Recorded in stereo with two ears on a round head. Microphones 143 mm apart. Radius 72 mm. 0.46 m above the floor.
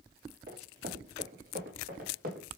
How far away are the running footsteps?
About 7 m.